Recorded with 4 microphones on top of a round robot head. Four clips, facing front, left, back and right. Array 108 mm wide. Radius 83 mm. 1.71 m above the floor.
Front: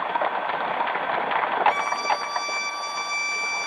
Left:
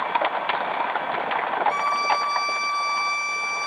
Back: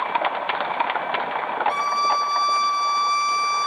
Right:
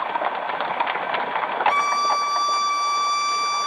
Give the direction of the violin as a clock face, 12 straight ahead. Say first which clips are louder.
Right 2 dB, back 3 dB; 3 o'clock.